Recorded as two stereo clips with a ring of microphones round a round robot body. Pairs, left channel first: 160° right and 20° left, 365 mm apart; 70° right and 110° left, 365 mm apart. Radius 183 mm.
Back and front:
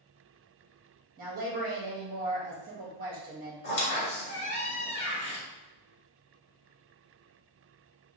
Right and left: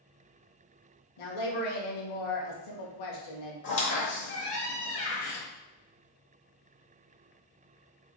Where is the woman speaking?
45° right, 1.0 m.